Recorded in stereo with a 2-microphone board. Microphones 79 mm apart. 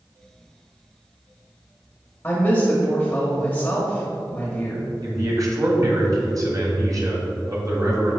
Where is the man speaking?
50° right (ahead or behind), 1.8 m.